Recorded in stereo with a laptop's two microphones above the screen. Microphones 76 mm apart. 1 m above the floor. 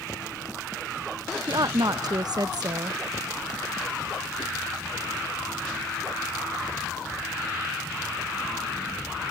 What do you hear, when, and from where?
1.5 s a woman speaking: 65° right (ahead or behind)